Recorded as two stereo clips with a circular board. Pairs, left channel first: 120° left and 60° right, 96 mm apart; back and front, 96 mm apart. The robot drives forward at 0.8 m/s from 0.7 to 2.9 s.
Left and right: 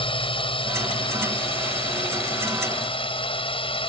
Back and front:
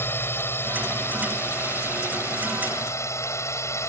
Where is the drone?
115° left; by 3.9 s 125° left.